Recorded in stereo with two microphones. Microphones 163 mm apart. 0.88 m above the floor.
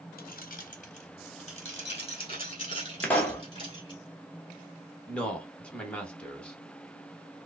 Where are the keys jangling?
65° left (ahead or behind), 0.6 m; by 4.0 s 30° left (ahead or behind), 2.5 m.